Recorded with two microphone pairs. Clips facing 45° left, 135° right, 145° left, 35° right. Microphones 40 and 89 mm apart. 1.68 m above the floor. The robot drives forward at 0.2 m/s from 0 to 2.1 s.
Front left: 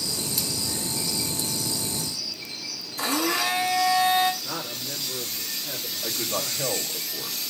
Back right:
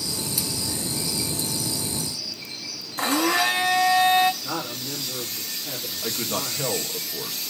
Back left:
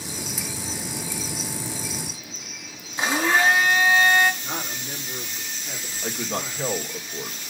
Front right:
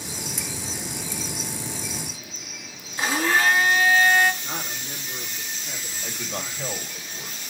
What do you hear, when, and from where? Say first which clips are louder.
3.0 s a blender: back right 4 dB, back left 1 dB; 150° right, 2.5 m
4.4 s a man speaking: back right 3 dB, back left 1 dB; 140° right, 4 m
6.0 s a man speaking: back right 1 dB, back left 5 dB; 170° left, 2 m